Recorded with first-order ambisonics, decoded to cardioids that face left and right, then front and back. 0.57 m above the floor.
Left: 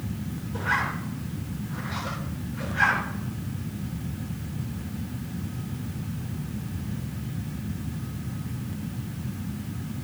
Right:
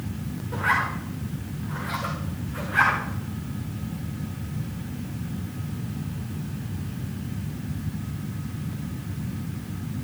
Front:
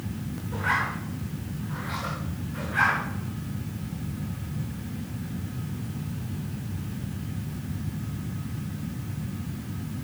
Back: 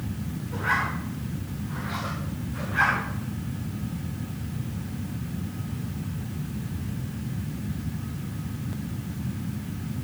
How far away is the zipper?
About 10 m.